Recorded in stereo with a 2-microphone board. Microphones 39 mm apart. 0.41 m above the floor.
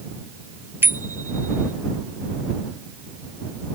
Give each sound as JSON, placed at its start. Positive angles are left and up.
{"t": 0.8, "sound": "a bicycle bell", "side_deg": -85}